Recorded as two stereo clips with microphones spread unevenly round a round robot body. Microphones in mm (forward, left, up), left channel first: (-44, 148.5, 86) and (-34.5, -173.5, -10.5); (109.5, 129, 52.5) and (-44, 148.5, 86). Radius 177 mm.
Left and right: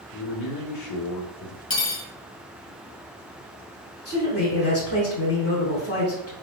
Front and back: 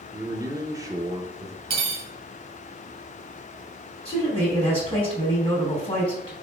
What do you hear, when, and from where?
0.1 s a man speaking: 95° left, 1.2 m
1.7 s cutlery clinking: 150° left, 1.9 m
4.0 s a man speaking: 45° left, 3.5 m